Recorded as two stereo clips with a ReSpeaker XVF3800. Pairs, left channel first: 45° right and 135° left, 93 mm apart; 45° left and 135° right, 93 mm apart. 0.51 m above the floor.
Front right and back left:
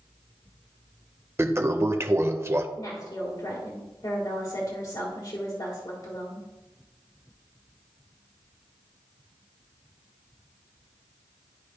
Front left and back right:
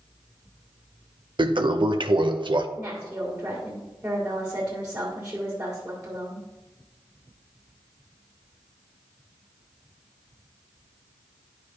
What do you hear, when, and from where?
1.4 s a toilet flushing: 165° right, 0.5 m
2.8 s a woman speaking: 65° right, 1.7 m